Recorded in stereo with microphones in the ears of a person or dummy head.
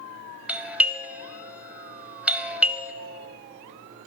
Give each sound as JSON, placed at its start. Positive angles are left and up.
{"t": 0.5, "sound": "a doorbell", "side_deg": -5, "distance_m": 0.7}